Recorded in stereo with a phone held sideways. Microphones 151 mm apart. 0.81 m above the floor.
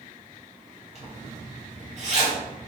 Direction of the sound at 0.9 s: 45° right (ahead or behind).